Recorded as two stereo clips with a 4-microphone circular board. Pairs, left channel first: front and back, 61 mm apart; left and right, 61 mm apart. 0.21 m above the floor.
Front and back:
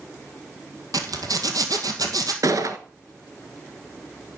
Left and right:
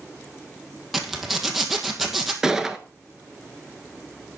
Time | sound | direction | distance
0.9 | a zipper | 175° right | 1.9 m
2.4 | a gunshot | 170° right | 1.1 m